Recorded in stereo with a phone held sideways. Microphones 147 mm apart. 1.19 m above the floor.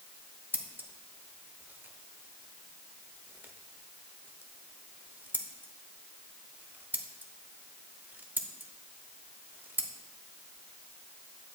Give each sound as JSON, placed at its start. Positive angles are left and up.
{"t": 0.5, "sound": "scissors", "side_deg": -10, "distance_m": 0.9}